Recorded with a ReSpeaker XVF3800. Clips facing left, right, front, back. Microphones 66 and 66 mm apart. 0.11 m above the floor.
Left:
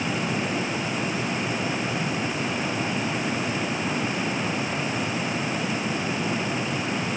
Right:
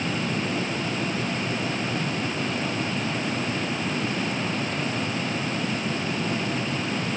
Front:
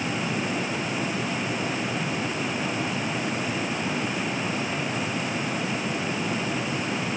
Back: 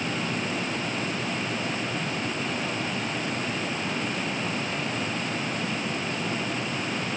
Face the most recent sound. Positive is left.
No sound to turn to.